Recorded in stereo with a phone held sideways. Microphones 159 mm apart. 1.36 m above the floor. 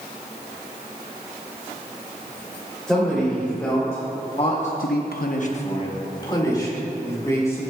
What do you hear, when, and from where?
2.9 s a man speaking: 5° left (ahead or behind), 3 m; by 7.6 s 20° left (ahead or behind), 4 m